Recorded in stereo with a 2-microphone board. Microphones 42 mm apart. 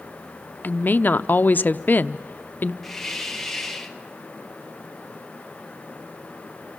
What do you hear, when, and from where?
0.6 s a woman speaking: 50° left (ahead or behind), 0.6 m
2.8 s a hiss: 5° left (ahead or behind), 1.4 m